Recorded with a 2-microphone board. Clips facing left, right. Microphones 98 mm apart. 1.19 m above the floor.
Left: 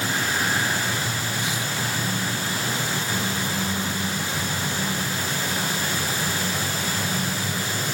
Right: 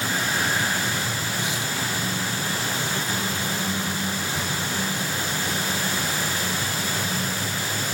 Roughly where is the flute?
I don't hear a flute.